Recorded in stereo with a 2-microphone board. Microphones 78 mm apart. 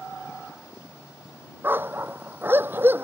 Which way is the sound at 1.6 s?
25° right (ahead or behind).